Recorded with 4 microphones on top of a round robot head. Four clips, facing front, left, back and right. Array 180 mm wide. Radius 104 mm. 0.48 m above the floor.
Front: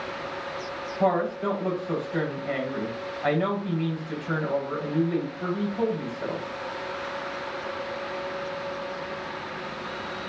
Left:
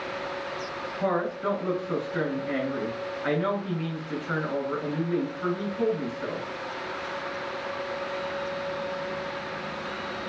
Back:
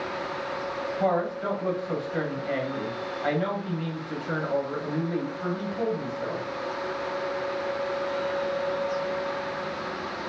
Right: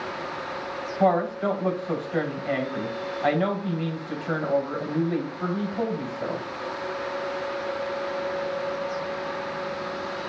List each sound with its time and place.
1.0 s a woman speaking: 70° right, 4 m